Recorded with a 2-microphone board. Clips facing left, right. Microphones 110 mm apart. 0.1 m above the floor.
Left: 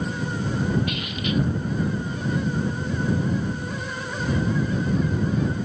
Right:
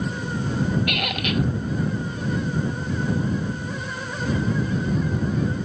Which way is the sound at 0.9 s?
70° right (ahead or behind).